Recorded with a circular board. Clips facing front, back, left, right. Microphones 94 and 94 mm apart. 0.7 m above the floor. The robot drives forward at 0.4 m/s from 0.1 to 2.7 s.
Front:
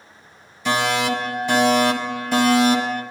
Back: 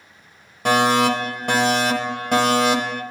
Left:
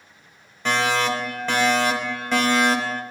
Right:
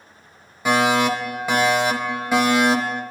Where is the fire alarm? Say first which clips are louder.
Back 4 dB, right 4 dB; 170° right, 3.5 m.